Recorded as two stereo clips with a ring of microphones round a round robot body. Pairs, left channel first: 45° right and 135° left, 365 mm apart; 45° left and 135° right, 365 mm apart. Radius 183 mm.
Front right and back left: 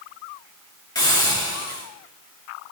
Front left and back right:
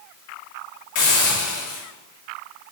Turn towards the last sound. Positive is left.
turn(degrees=35)